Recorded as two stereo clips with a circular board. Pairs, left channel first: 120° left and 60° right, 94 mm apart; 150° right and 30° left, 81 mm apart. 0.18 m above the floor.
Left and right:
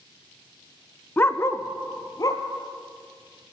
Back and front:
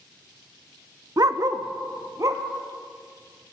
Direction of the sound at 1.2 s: 55° left.